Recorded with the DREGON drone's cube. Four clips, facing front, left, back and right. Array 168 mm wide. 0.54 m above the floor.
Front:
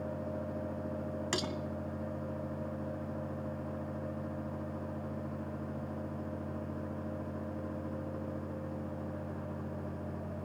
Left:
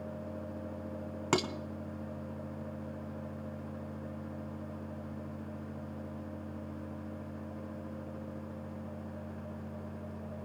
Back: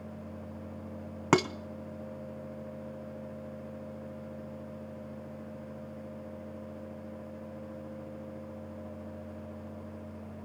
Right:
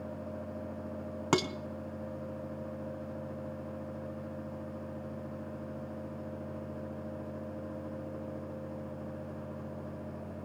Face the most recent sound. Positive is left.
turn(degrees=-170)